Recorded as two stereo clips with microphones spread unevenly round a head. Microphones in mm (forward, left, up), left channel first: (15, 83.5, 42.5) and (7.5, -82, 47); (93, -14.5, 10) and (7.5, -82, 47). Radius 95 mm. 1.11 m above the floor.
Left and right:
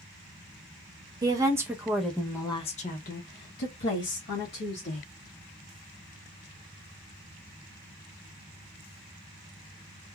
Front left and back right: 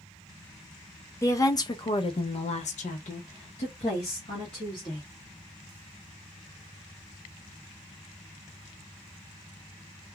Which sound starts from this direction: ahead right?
A woman speaking, at 1.2 s.